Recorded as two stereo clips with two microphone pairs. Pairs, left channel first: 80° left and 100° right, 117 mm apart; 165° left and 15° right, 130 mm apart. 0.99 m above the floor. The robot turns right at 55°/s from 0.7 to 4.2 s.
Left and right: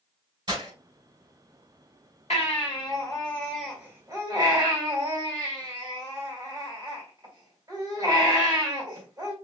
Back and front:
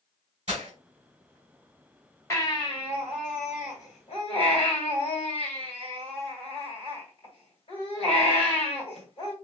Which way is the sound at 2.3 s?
95° left.